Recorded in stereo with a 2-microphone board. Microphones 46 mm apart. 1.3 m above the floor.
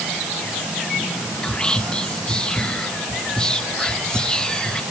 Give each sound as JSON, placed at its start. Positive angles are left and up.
{"t": 1.4, "sound": "whispering", "side_deg": 20, "distance_m": 1.7}